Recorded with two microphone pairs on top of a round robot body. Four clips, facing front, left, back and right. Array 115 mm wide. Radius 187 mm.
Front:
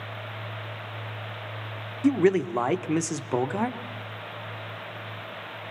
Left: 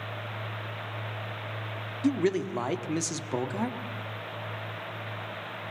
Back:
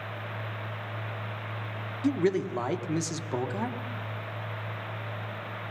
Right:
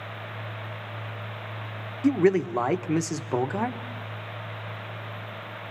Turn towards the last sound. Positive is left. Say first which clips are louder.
# right 5 dB, front 5 dB
turn(degrees=-45)